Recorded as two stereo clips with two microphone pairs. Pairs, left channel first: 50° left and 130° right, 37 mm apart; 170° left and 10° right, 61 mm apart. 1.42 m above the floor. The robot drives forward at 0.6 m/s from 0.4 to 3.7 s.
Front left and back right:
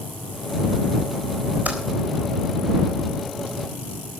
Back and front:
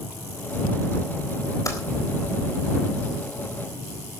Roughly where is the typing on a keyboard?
Behind.